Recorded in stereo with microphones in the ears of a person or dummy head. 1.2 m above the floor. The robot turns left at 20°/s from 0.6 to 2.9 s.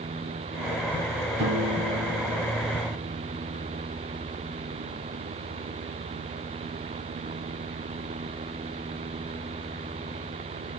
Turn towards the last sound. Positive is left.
turn(degrees=-140)